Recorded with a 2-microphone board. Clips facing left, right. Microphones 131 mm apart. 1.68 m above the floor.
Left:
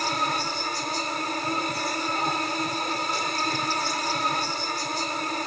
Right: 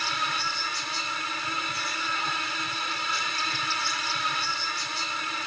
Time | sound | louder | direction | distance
0.0 | an insect | left 5 dB | 40° left (ahead or behind) | ?